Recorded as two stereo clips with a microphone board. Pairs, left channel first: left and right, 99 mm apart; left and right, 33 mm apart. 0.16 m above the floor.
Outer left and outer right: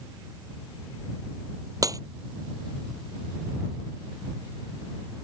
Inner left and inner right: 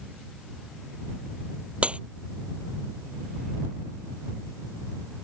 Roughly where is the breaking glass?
Right.